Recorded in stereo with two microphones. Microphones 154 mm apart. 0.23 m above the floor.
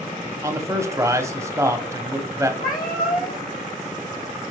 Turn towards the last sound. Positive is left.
turn(degrees=70)  # may be behind; listen again after turning